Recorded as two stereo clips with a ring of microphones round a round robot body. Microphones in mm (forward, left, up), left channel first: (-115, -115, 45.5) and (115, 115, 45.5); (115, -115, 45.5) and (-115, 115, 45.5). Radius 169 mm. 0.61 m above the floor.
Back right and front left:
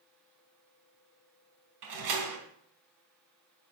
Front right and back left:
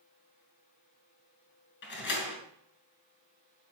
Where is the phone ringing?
I don't hear a phone ringing.